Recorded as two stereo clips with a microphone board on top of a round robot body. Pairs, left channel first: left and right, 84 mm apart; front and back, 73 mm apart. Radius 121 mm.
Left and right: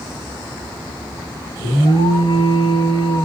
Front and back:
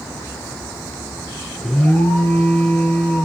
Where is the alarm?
65° left, 9 m.